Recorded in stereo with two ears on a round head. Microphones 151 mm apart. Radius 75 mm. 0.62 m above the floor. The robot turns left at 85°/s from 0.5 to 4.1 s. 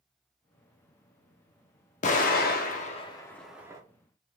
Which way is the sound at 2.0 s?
45° left (ahead or behind).